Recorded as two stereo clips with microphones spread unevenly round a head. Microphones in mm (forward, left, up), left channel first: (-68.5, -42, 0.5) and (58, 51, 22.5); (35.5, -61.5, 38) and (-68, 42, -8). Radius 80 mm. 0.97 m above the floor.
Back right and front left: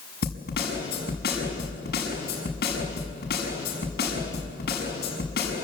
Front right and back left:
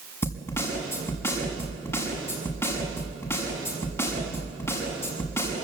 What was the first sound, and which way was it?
A snare drum, 115° right.